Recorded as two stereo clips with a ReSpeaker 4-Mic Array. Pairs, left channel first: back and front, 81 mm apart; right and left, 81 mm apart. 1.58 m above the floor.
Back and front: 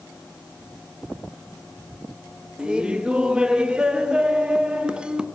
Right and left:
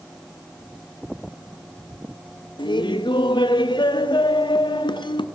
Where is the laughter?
80° right, 0.5 m.